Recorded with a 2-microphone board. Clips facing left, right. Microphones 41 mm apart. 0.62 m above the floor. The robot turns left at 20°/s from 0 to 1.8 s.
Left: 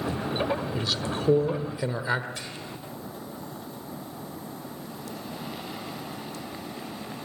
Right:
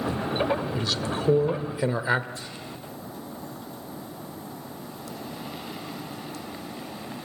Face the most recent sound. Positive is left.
turn(degrees=70)  # may be behind; listen again after turning